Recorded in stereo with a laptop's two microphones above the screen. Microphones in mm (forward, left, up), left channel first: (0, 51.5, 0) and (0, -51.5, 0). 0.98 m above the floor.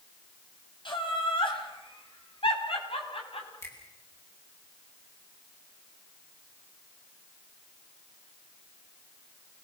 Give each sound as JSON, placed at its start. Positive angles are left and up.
{"t": 0.8, "sound": "laughter", "side_deg": 55, "distance_m": 7.0}
{"t": 3.6, "sound": "a finger snap", "side_deg": 30, "distance_m": 7.0}